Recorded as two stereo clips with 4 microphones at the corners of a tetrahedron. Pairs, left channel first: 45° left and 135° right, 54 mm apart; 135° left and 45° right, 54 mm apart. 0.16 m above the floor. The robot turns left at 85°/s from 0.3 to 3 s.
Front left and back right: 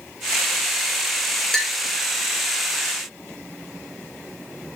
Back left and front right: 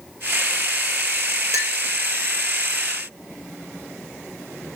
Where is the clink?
40° right, 2 m; by 1.8 s 55° right, 2 m.